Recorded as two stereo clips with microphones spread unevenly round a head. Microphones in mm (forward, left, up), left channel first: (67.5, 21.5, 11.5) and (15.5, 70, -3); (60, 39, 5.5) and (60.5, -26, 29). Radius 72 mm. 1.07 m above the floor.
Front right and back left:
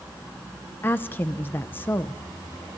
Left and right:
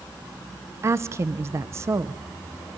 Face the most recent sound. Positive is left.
turn(degrees=-80)